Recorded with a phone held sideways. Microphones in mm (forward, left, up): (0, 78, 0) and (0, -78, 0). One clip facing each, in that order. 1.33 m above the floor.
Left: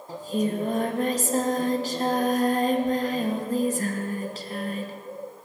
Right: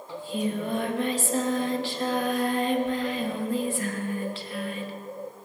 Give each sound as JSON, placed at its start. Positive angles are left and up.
{"t": 0.1, "sound": "singing", "side_deg": 40, "distance_m": 1.1}